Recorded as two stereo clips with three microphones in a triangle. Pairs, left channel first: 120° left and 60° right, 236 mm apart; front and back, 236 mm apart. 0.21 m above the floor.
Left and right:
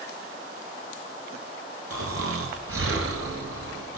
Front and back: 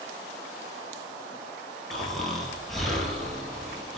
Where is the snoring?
90° right, 0.7 m.